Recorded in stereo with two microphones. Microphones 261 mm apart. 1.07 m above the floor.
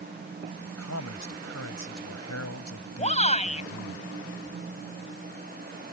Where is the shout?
25° left (ahead or behind).